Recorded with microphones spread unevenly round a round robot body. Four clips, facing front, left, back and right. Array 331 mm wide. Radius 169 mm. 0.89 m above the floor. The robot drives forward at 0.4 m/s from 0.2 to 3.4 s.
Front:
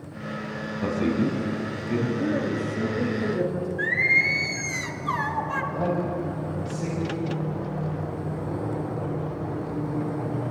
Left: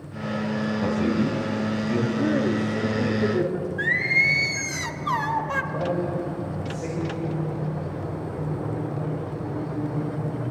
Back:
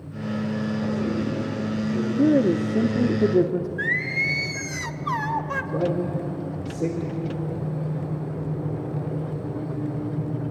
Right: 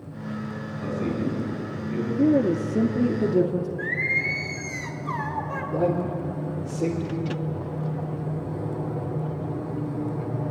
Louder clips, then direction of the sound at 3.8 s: Left 3 dB, front 2 dB; 115° left.